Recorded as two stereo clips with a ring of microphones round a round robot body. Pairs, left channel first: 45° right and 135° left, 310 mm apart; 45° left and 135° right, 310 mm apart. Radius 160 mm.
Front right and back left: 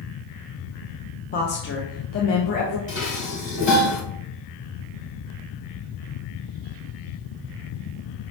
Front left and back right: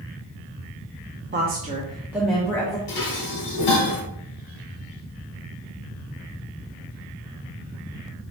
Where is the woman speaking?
95° right, 0.8 m; by 2.8 s 30° right, 1.0 m.